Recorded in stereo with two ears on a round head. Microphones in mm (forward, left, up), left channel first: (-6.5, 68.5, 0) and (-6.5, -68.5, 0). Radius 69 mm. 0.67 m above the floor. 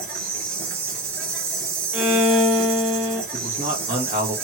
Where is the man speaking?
25° right (ahead or behind), 1.0 m.